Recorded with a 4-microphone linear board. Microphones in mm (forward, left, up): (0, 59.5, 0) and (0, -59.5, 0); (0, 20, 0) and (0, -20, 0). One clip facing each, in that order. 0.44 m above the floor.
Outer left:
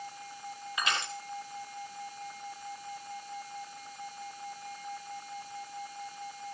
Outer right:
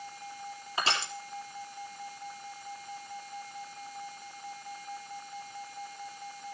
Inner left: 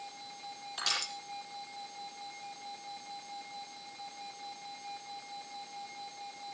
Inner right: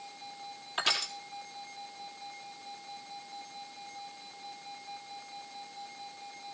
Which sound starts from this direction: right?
Crushing, at 0.8 s.